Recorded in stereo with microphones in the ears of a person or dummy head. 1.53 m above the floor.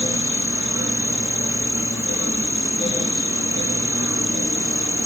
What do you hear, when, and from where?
0.0 s an insect: 20° right (ahead or behind)